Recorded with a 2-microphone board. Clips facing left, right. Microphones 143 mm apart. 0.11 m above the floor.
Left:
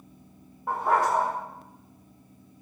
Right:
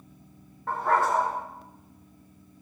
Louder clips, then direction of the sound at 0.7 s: Even; 15° left (ahead or behind).